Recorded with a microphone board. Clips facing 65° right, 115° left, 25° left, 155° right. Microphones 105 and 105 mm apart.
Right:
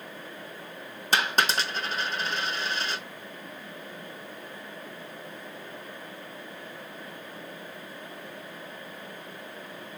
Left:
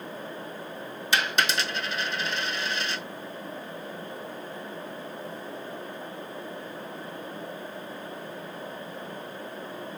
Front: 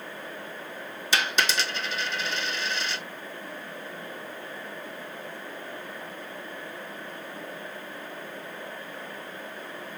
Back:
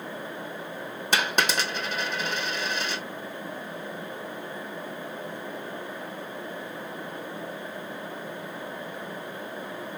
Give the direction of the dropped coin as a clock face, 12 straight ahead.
4 o'clock.